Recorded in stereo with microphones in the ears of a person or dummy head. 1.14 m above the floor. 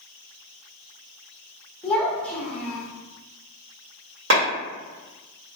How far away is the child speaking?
About 0.8 m.